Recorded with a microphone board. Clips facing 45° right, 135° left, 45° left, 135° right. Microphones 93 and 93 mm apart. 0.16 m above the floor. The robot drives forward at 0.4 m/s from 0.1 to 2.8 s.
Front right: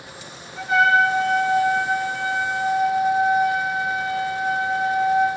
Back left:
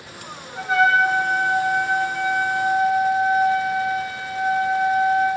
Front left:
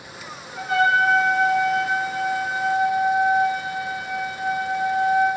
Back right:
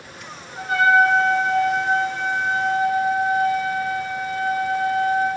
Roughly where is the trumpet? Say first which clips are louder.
Even, back right 3 dB; behind.